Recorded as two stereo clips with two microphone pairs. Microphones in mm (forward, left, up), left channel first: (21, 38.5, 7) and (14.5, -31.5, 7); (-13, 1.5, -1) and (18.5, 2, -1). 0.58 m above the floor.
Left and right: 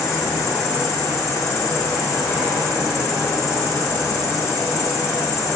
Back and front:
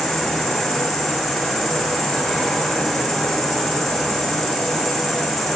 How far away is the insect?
About 1.3 m.